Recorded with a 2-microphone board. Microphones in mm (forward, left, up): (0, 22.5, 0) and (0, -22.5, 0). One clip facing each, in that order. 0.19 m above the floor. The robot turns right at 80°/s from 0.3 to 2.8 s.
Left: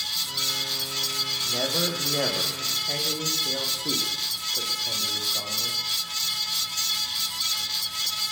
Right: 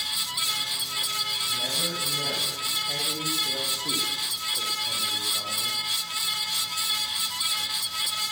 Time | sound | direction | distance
1.4 | a man speaking | 60° left | 8 m